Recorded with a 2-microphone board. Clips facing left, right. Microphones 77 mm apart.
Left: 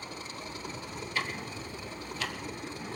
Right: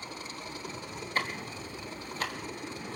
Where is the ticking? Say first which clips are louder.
Right 2 dB; 40° right (ahead or behind), 1.5 m.